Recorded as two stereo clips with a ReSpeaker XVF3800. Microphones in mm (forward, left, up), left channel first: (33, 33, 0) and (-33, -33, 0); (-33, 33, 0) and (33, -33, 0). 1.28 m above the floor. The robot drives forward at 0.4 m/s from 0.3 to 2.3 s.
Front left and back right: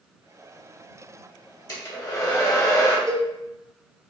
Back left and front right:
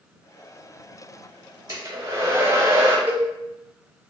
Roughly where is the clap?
I don't hear a clap.